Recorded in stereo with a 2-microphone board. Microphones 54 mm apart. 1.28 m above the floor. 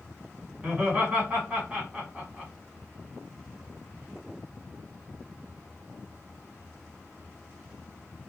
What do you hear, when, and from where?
0.6 s laughter: 25° right (ahead or behind), 1.5 m